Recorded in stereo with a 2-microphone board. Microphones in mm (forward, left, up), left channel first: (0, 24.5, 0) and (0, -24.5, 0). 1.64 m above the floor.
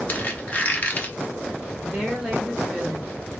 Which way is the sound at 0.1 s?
35° left (ahead or behind).